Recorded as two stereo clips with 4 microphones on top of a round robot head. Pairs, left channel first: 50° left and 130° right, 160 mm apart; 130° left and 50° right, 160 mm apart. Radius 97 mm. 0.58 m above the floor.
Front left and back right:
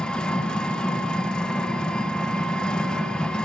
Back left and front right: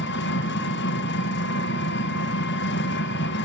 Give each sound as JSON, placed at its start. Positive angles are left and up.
{"t": 0.0, "sound": "an engine running", "azimuth_deg": 135, "distance_m": 2.0}